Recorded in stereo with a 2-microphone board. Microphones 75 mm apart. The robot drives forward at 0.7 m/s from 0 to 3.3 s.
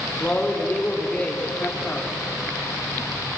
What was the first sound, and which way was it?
A man speaking, 20° left (ahead or behind).